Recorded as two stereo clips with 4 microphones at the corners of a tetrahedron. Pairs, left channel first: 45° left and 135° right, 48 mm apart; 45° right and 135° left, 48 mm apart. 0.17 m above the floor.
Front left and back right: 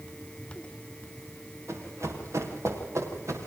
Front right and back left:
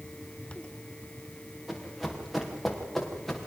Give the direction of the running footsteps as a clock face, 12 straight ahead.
5 o'clock.